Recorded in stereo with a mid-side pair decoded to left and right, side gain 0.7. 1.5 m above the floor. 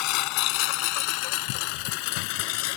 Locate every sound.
0.0 s a lawn mower: 65° left; by 2.8 s 75° left